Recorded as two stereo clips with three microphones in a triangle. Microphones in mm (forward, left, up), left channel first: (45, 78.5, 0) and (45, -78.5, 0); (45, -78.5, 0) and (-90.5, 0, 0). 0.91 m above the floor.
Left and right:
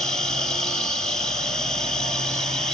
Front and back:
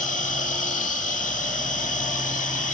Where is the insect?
5° left, 1.8 m.